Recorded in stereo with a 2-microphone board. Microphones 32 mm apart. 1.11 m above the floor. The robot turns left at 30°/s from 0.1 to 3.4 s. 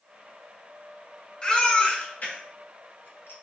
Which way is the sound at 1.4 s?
25° left (ahead or behind).